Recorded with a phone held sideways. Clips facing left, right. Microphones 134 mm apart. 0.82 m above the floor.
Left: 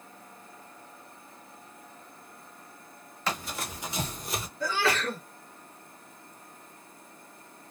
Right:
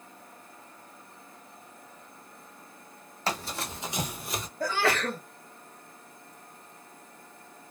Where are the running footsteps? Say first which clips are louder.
Right 1 dB; 35° right (ahead or behind), 1.4 m; by 4.5 s 10° left (ahead or behind), 0.8 m.